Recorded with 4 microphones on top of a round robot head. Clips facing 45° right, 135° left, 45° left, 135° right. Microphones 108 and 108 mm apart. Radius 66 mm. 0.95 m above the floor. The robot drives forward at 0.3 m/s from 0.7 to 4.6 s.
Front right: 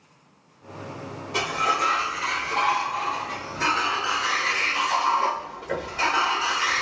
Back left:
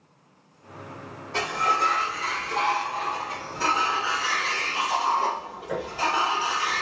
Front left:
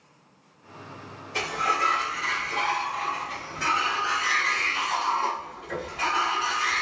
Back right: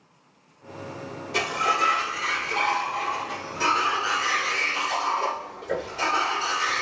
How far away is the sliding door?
About 1.3 m.